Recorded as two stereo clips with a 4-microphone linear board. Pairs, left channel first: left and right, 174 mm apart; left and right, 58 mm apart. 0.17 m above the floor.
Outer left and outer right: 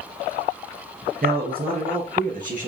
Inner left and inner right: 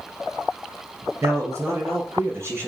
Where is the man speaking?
60° right (ahead or behind), 3.5 m; by 2.7 s 50° right (ahead or behind), 3.5 m.